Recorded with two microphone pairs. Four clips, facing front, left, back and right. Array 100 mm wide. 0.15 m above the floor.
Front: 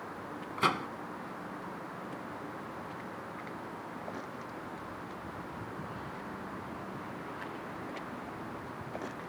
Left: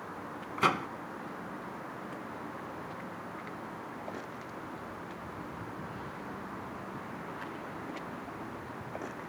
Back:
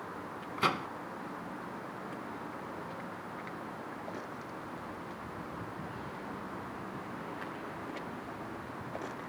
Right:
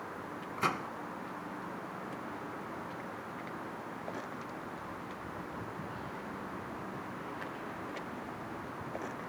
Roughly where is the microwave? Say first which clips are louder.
Left 5 dB, front 1 dB; left.